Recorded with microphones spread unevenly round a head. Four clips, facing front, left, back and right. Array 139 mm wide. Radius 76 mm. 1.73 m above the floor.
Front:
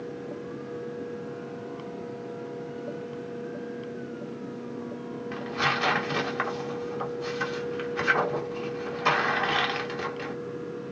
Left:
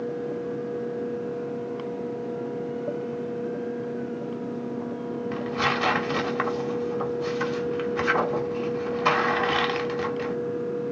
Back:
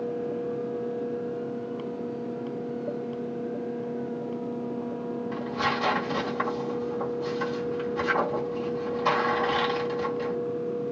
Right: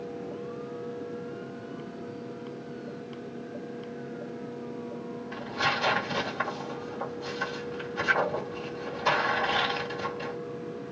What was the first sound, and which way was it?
Tearing paper, 100° left.